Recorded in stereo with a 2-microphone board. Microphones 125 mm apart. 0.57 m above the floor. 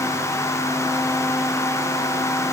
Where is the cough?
I don't hear a cough.